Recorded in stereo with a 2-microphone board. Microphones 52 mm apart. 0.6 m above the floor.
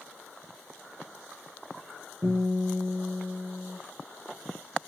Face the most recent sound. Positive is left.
turn(degrees=-70)  # may be behind; listen again after turning